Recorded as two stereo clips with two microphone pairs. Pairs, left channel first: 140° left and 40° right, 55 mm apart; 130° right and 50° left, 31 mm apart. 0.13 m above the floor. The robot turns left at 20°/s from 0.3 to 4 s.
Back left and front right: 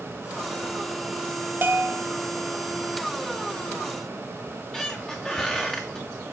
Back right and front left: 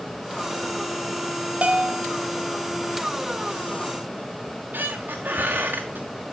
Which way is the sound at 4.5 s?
60° left.